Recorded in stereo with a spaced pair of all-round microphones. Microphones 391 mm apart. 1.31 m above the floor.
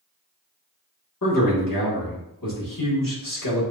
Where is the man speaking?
55° left (ahead or behind), 1.6 m.